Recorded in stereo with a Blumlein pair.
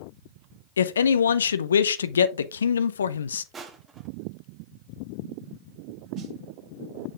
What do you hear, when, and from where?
0.8 s a man speaking: 65° left, 0.6 m
3.5 s crushing: 20° right, 1.2 m
6.2 s a snare drum: 30° right, 1.8 m